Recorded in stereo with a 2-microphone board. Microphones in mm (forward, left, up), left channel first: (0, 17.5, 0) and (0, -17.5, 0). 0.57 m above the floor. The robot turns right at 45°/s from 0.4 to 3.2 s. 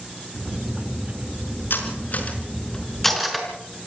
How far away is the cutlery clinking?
About 5 m.